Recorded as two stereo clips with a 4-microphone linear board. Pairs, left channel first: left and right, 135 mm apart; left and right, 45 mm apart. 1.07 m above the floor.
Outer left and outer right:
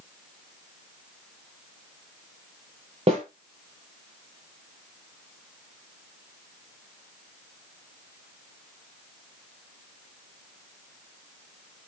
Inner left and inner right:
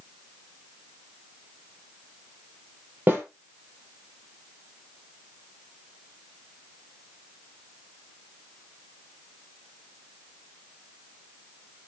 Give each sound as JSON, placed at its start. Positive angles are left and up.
{"t": 3.1, "sound": "a snare drum", "side_deg": -45, "distance_m": 5.5}